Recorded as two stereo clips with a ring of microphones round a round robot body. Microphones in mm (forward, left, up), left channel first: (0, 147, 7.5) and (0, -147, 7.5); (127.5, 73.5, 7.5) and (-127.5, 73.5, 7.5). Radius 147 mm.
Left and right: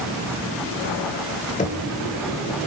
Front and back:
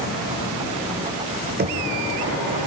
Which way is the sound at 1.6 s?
150° left.